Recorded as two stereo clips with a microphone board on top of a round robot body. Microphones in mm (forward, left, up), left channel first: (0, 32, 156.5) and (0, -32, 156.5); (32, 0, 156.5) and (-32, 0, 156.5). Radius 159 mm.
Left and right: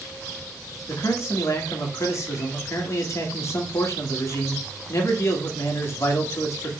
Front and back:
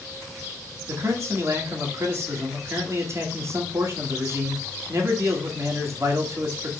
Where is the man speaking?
135° left, 1.9 m.